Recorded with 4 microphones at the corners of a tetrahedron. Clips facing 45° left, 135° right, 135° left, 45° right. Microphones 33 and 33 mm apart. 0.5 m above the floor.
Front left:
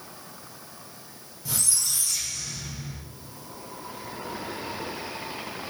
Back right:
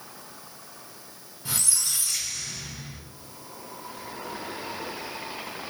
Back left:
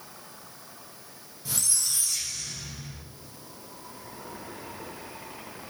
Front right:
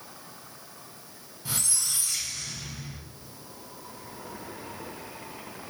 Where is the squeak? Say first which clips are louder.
Even, even; 85° right, 0.8 m.